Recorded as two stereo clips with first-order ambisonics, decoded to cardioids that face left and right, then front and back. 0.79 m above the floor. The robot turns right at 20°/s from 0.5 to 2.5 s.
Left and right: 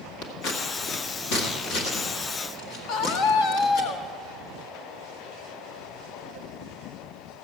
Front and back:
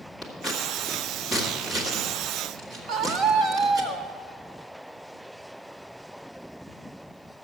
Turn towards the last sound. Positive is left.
turn(degrees=125)